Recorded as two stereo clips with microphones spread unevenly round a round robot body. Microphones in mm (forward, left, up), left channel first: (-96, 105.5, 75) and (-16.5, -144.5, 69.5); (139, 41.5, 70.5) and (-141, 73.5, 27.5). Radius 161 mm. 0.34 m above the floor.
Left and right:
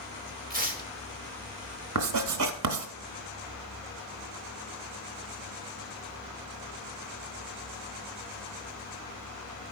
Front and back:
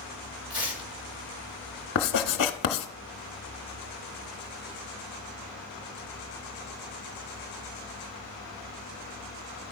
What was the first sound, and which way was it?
Tearing paper, 120° right.